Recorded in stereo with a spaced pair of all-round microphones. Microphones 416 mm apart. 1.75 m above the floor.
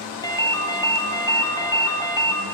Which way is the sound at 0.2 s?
10° left (ahead or behind).